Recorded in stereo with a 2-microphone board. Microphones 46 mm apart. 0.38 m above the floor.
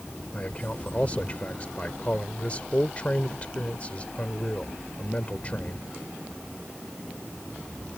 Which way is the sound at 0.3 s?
30° left (ahead or behind).